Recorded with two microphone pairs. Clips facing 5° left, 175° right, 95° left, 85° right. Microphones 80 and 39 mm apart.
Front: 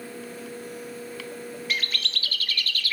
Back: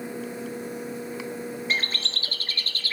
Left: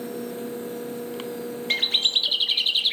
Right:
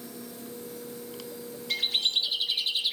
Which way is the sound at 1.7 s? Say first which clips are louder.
Even, left 5 dB; 130° left.